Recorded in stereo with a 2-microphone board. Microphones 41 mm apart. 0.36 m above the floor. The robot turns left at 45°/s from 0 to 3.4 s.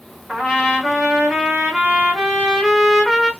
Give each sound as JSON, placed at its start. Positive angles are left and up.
{"t": 0.3, "sound": "a trumpet", "side_deg": -15, "distance_m": 1.1}